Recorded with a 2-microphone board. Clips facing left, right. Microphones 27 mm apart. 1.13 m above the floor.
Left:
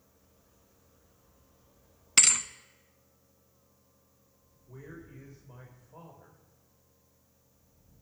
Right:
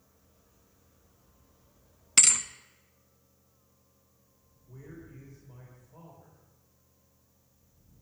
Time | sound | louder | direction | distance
2.2 | a thud | even | 5° left (ahead or behind) | 1.1 m
4.7 | a man speaking | left 1 dB | 25° left (ahead or behind) | 4.5 m